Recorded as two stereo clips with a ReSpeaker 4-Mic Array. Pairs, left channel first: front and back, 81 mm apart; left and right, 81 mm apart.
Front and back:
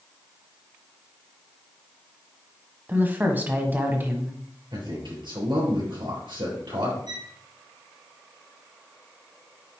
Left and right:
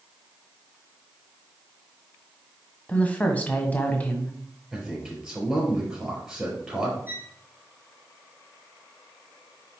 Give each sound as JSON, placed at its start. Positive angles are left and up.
{"t": 2.9, "sound": "a woman speaking", "azimuth_deg": 140, "distance_m": 1.3}
{"t": 4.7, "sound": "a man speaking", "azimuth_deg": -175, "distance_m": 4.5}
{"t": 7.1, "sound": "a violin", "azimuth_deg": -160, "distance_m": 3.0}